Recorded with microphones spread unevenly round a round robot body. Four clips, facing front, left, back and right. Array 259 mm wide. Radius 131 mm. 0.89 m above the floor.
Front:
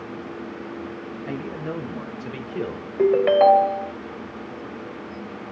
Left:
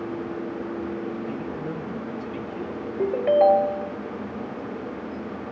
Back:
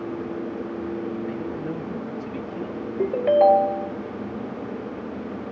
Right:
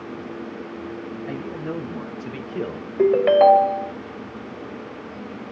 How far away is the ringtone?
About 1.4 m.